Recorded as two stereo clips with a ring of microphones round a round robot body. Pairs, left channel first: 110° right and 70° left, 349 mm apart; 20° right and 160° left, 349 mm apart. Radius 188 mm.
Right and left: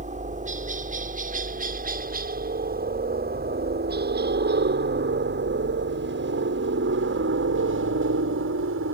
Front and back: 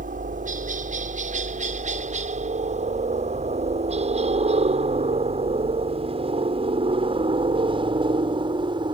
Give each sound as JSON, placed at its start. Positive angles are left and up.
{"t": 0.0, "sound": "a helicopter", "azimuth_deg": 115}